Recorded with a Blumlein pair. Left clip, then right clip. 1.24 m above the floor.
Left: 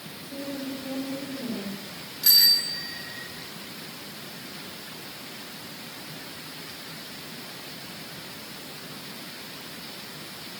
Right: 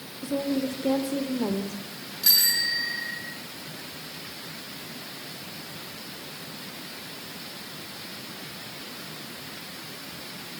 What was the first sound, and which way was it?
A woman speaking, 35° right.